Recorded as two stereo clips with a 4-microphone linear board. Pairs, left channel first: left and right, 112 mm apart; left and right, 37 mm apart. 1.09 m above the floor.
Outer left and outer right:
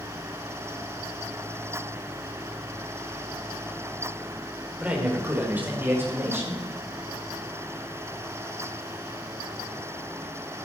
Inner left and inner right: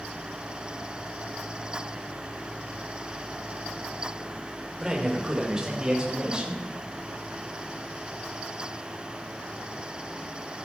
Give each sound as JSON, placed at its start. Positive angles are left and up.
{"t": 4.8, "sound": "a man speaking", "side_deg": -10, "distance_m": 3.5}